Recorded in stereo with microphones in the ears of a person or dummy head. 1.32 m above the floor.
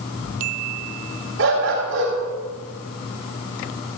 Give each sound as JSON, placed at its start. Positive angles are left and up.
{"t": 1.4, "sound": "a dog barking", "side_deg": -75, "distance_m": 3.5}